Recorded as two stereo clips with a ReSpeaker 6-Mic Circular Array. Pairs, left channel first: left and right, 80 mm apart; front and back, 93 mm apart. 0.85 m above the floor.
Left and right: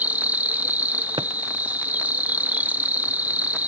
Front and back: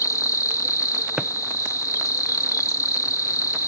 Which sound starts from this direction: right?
A drawer, at 1.2 s.